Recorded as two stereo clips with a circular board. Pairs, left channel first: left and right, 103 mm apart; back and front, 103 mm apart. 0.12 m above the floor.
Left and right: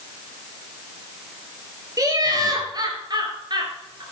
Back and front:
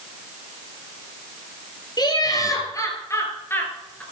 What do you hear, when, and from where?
2.0 s laughter: 140° right, 3 m; by 4.0 s 110° right, 2.5 m